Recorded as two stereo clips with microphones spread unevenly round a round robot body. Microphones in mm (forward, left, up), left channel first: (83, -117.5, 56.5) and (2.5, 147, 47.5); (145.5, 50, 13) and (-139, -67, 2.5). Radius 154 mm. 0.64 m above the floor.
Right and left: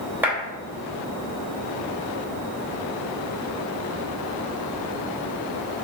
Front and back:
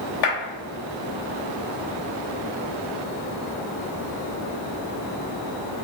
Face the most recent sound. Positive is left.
turn(degrees=25)